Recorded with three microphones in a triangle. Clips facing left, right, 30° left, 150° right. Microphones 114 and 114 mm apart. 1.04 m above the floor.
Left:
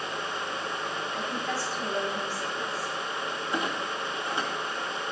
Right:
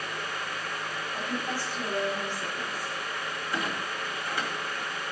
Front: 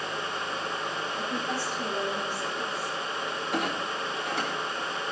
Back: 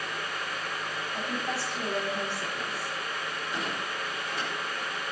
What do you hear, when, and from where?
1.1 s a woman speaking: 165° right, 6.5 m
3.5 s a clunk: 25° left, 2 m